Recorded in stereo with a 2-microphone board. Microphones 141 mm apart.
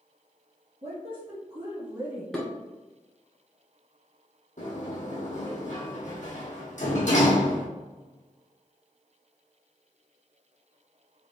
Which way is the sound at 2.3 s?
5° left (ahead or behind).